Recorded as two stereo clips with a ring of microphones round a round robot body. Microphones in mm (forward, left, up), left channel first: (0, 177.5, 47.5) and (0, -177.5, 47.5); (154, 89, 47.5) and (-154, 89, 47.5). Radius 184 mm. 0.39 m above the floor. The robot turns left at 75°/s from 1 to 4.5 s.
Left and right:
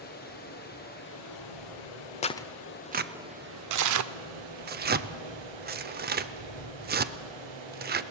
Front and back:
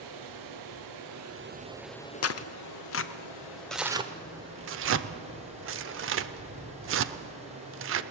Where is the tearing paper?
25° left, 0.7 m; by 8.0 s 145° right, 0.7 m.